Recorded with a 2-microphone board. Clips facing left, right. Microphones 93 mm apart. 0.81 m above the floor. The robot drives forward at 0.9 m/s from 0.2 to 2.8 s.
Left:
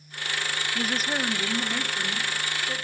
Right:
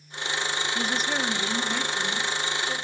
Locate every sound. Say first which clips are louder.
0.8 s a woman speaking: left 1 dB; 5° left (ahead or behind), 1.5 m